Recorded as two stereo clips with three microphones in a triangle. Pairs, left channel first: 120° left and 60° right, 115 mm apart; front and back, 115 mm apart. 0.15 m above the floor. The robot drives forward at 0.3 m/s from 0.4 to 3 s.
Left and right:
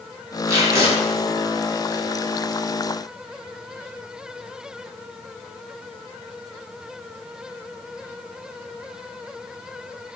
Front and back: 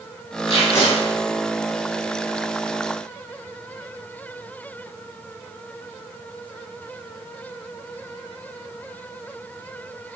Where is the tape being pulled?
Straight ahead, 1.0 m; by 0.9 s 5° right, 0.9 m.